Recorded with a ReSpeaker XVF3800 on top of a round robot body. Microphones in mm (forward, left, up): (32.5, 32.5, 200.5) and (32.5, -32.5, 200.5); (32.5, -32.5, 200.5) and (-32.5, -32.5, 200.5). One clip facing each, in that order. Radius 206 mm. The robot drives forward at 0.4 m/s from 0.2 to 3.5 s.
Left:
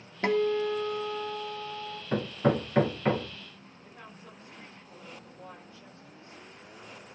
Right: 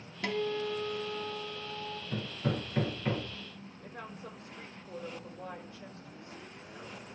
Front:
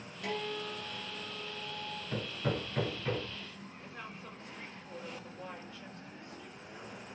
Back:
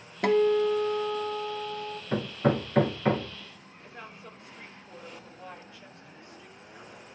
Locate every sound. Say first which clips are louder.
0.2 s a guitar: left 7 dB, back 16 dB; 145° left, 0.6 m; by 2.0 s 165° left, 1.2 m
2.1 s hammering: left 9 dB, back 10 dB; 130° left, 1.1 m; by 3.4 s 145° left, 1.4 m
3.8 s a woman speaking: right 5 dB, back 3 dB; 95° right, 6 m